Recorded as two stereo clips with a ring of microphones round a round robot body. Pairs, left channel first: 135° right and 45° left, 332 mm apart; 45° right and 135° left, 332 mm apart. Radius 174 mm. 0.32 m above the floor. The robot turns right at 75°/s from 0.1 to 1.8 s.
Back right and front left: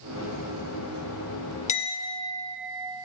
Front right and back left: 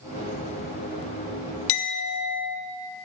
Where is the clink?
75° right, 0.5 m; by 2.6 s 65° right, 0.5 m.